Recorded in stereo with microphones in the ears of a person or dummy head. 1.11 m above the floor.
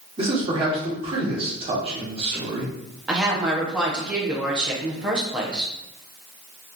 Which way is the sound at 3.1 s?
5° right (ahead or behind).